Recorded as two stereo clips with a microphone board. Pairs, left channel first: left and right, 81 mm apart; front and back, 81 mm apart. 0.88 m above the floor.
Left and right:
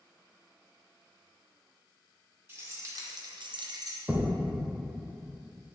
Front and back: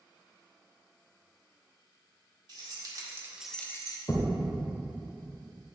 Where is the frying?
I don't hear frying.